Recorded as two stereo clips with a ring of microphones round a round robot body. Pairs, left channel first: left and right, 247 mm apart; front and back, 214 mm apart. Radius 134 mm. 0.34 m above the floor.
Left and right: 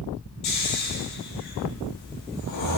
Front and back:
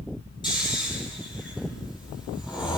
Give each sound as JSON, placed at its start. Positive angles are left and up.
{"t": 0.4, "sound": "snoring", "azimuth_deg": 70, "distance_m": 7.5}